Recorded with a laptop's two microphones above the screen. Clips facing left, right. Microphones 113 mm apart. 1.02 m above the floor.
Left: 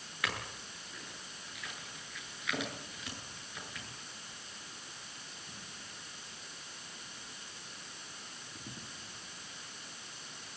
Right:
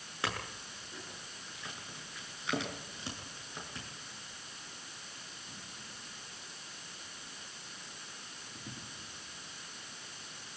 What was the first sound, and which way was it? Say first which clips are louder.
A clink: right 1 dB; 30° right (ahead or behind).